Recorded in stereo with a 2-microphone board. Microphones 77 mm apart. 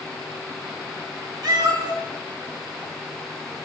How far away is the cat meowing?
About 3.5 m.